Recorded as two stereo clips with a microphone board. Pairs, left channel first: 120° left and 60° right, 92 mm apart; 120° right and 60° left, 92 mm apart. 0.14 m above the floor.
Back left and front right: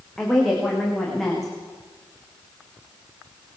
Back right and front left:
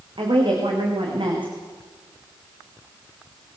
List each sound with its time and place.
0.2 s a woman speaking: 35° left, 9.5 m